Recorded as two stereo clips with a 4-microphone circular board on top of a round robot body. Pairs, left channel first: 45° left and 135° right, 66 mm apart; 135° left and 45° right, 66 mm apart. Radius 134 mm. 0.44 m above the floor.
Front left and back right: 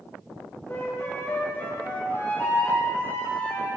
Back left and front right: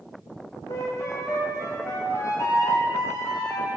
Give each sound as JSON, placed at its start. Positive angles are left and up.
{"t": 0.7, "sound": "a flute", "azimuth_deg": 100, "distance_m": 1.7}